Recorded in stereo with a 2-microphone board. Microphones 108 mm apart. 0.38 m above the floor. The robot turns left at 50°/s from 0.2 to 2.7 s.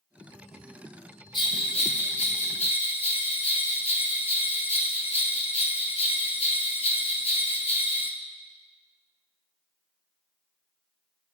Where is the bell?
135° left, 1.0 m; by 8.1 s 70° left, 1.0 m.